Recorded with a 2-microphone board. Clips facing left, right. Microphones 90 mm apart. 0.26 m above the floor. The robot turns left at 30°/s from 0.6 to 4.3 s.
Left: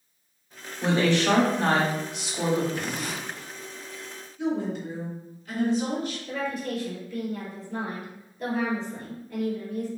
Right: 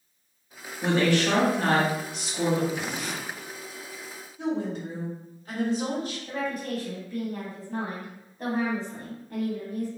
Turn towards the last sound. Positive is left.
turn(degrees=-45)  # may be behind; listen again after turning